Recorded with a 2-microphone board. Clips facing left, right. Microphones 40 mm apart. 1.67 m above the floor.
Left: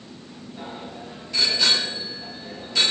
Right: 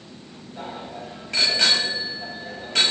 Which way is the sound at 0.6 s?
55° right (ahead or behind).